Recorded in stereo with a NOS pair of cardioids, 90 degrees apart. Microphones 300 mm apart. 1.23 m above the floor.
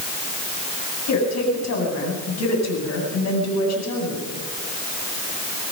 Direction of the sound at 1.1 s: 60° left.